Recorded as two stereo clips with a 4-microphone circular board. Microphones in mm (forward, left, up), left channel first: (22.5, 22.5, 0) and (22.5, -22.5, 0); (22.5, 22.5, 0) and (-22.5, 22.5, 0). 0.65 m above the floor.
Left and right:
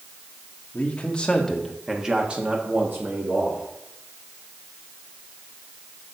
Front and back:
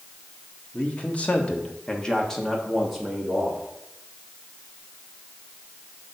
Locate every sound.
0.7 s a man speaking: 45° left, 1.7 m; by 3.6 s 100° right, 2 m